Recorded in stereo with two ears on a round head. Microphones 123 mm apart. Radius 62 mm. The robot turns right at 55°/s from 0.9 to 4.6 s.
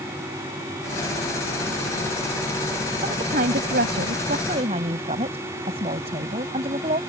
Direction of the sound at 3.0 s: 130° right.